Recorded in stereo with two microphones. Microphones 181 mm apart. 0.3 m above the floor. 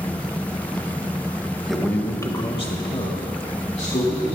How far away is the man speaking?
About 1.5 m.